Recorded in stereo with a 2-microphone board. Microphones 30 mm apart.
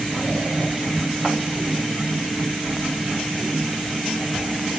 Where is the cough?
I don't hear a cough.